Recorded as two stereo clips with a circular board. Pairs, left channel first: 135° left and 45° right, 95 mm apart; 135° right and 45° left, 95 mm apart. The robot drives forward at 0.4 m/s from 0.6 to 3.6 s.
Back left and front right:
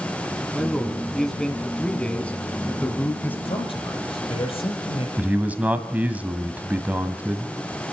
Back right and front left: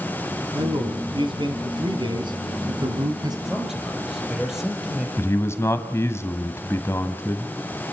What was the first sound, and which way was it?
A man speaking, 45° left.